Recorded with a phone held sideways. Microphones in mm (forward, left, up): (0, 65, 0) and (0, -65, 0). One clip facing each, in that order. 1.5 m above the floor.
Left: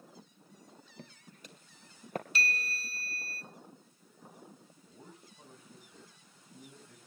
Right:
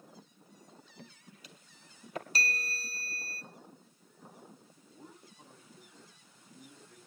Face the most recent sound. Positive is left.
turn(degrees=50)  # may be behind; listen again after turning